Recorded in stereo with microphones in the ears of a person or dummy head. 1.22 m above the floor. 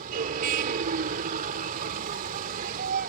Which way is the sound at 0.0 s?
50° right (ahead or behind).